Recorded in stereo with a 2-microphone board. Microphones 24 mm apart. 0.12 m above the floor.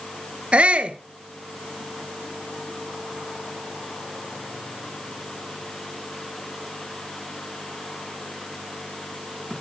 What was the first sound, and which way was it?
A shout, 50° right (ahead or behind).